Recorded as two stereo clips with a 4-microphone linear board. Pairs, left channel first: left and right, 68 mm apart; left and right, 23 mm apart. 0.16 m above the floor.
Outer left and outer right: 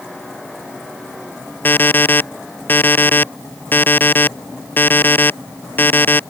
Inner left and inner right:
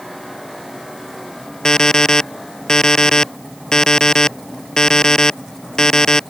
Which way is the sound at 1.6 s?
30° left (ahead or behind).